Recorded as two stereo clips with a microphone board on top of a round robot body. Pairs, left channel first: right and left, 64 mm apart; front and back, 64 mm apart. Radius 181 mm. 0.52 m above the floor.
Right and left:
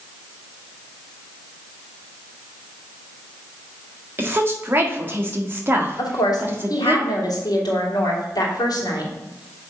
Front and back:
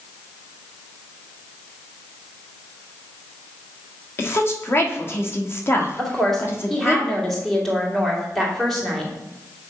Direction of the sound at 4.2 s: 45° left.